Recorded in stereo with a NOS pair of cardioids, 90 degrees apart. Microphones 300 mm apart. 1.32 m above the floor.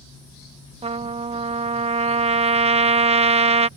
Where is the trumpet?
20° right.